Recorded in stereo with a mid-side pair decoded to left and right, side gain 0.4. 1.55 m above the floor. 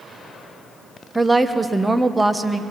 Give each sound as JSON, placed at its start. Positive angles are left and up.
{"t": 1.1, "sound": "a woman speaking", "azimuth_deg": -15, "distance_m": 1.5}